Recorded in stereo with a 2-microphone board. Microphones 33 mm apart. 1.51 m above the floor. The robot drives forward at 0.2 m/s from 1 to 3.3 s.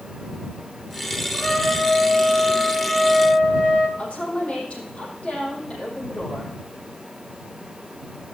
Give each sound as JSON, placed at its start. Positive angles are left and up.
{"t": 1.3, "sound": "a trumpet", "side_deg": 45, "distance_m": 1.6}
{"t": 4.0, "sound": "a woman speaking", "side_deg": 45, "distance_m": 6.0}